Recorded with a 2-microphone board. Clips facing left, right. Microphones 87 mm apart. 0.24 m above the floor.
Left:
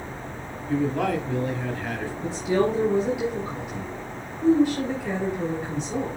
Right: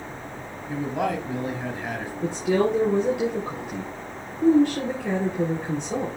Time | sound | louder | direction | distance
0.7 | a man speaking | left 2 dB | 15° right (ahead or behind) | 1.3 m
2.2 | a woman speaking | right 1 dB | 60° right (ahead or behind) | 3.5 m